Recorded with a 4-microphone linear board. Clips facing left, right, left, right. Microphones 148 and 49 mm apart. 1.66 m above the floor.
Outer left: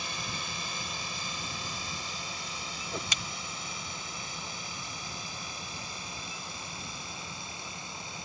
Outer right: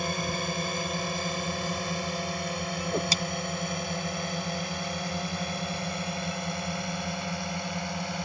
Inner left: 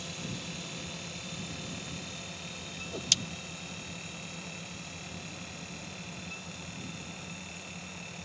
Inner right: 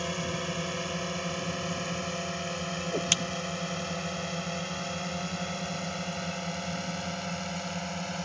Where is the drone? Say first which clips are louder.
Outer right 10 dB, inner right 8 dB; 55° right (ahead or behind); by 8.2 s 70° right (ahead or behind).